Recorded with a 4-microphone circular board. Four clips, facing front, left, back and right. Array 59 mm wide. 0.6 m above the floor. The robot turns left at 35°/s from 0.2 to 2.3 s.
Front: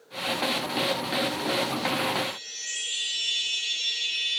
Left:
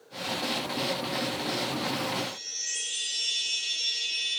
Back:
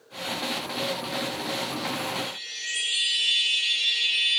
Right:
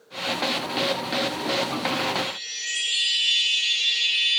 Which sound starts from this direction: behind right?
A chime, at 2.1 s.